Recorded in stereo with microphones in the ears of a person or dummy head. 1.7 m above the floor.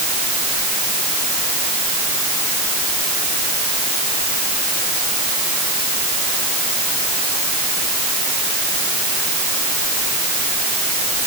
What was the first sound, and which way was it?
Only background noise.